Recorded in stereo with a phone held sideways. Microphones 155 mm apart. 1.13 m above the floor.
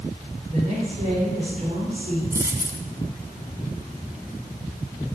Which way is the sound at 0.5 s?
50° right (ahead or behind).